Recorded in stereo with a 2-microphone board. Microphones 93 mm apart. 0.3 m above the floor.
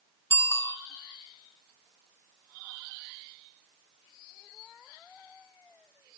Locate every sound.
0.3 s a bicycle bell: 25° left (ahead or behind), 2.5 m